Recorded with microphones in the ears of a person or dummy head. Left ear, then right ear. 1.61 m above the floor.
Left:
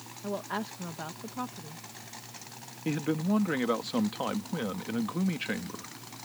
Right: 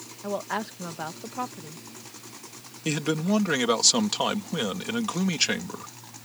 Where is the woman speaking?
20° right (ahead or behind).